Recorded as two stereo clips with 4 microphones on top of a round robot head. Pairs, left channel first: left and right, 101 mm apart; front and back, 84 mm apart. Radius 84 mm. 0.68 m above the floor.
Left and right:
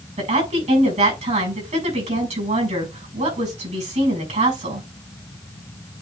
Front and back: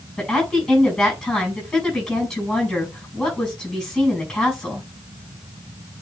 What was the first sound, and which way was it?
A woman speaking, 90° right.